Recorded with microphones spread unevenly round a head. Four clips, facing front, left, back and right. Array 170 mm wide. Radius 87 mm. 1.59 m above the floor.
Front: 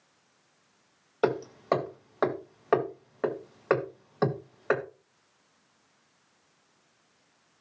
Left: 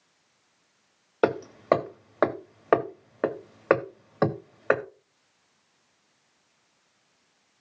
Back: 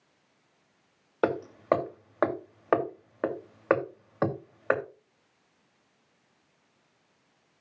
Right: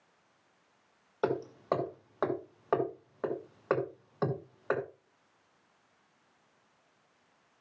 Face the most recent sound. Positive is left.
turn(degrees=95)